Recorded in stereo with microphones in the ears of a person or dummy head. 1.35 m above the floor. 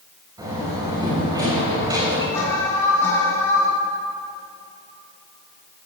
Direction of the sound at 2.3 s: 10° left (ahead or behind).